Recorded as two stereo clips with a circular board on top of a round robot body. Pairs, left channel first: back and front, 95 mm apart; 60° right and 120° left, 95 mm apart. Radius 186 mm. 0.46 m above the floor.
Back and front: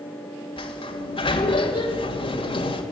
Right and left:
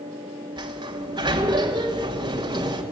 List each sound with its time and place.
0.6 s a sliding door: 160° left, 2.5 m